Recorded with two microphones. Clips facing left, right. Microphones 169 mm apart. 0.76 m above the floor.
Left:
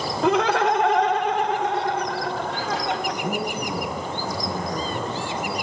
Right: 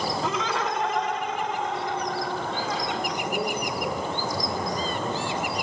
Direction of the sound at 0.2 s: 65° left (ahead or behind).